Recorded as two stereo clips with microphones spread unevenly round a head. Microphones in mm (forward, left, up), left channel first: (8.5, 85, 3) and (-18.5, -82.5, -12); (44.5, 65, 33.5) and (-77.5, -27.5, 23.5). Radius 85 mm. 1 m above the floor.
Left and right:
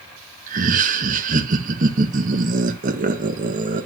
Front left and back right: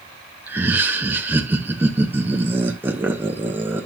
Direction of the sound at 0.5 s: 70° right.